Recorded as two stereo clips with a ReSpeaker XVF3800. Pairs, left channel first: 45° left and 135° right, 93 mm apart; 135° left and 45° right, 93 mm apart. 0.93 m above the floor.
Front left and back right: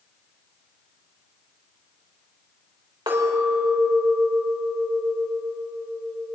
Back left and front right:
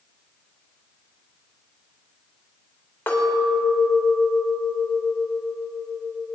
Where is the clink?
165° right, 3 m.